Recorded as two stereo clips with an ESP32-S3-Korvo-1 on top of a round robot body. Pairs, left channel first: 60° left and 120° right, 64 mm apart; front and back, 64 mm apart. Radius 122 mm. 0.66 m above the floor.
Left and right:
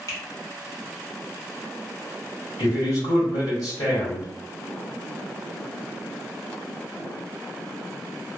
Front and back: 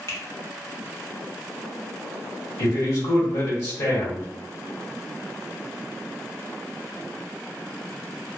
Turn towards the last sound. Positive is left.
turn(degrees=25)